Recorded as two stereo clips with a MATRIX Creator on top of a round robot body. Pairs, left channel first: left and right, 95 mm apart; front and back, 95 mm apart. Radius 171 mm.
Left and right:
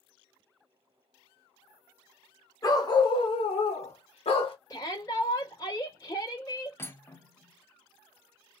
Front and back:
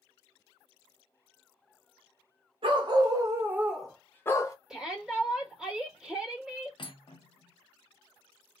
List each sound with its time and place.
2.6 s a dog barking: 145° left, 0.9 m; by 4.5 s 60° left, 0.8 m
4.7 s a shout: 100° left, 1.5 m
6.8 s cutlery clinking: 30° left, 0.8 m